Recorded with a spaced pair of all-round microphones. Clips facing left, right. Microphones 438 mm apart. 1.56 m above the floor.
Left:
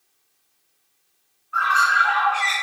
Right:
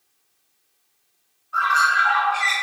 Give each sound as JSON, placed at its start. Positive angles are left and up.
{"t": 1.5, "sound": "a bird", "side_deg": -60, "distance_m": 0.7}